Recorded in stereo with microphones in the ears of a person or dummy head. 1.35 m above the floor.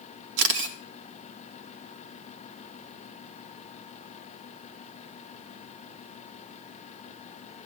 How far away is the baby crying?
I don't hear a baby crying.